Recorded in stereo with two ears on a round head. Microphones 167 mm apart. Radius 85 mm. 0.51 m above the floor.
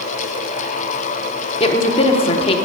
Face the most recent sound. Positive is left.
turn(degrees=30)  # may be behind; listen again after turning